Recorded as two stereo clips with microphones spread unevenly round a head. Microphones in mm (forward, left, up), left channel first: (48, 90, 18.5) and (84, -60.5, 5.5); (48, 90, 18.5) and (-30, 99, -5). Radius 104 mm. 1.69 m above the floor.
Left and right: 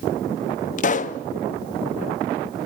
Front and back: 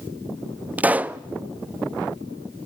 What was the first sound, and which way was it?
A pop, 95° left.